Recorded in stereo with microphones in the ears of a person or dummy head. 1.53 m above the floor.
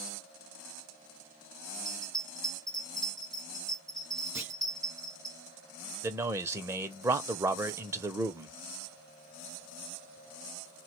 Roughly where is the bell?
Centre.